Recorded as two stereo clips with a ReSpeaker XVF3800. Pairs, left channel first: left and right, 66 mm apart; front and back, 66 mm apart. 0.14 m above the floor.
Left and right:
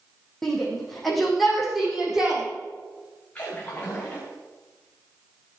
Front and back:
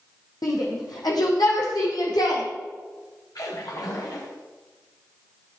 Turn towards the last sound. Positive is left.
turn(degrees=20)